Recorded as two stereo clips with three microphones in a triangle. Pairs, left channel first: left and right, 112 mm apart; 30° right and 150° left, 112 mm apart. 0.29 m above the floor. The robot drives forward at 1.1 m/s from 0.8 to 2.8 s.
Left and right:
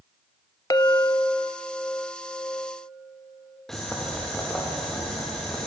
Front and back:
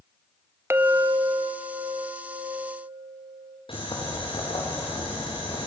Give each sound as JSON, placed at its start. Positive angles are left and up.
{"t": 0.7, "sound": "a clink", "azimuth_deg": 100, "distance_m": 0.7}
{"t": 3.7, "sound": "boiling", "azimuth_deg": 5, "distance_m": 7.5}